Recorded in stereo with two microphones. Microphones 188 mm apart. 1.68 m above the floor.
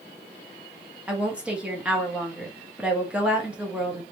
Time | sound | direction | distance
1.1 | a woman speaking | 5° right (ahead or behind) | 1.2 m